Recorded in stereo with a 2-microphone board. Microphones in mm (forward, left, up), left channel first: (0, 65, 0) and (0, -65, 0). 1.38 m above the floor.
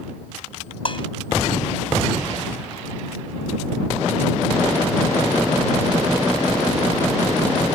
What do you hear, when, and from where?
0.8 s dishes clattering: 40° left (ahead or behind)